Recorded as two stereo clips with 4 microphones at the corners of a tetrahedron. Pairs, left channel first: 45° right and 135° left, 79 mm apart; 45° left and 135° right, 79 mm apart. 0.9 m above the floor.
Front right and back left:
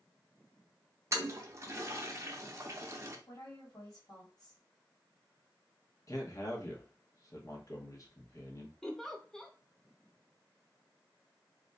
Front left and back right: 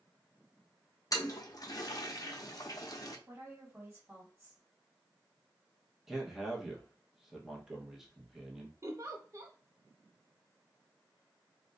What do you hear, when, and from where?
1.1 s a toilet flushing: 85° left, 0.5 m
3.3 s a woman speaking: 70° right, 1.6 m
6.1 s a man speaking: 50° right, 1.0 m
8.8 s a giggle: 125° right, 0.6 m